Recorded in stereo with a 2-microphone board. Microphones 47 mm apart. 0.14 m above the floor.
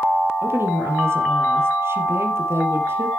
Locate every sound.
0.4 s a woman speaking: 60° right (ahead or behind), 3 m